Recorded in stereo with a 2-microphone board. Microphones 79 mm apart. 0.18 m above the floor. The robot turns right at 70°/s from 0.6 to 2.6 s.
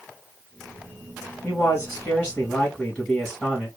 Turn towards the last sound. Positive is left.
turn(degrees=160)